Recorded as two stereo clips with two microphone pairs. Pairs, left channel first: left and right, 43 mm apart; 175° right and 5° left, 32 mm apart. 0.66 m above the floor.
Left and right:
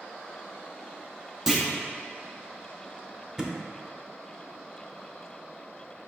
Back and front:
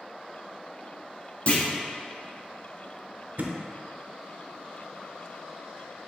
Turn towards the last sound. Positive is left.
turn(degrees=-10)